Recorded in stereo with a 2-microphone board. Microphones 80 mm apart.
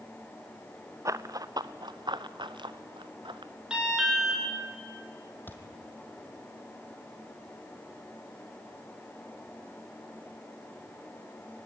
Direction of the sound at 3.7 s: 10° right (ahead or behind).